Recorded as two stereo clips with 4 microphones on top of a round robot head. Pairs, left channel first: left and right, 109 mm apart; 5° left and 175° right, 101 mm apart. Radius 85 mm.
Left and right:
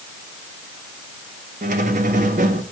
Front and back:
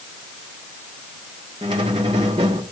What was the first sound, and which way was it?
A squeak, 115° right.